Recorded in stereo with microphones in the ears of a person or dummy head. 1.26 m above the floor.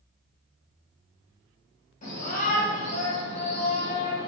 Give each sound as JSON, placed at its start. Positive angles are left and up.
{"t": 2.0, "sound": "a shout", "side_deg": 40, "distance_m": 1.6}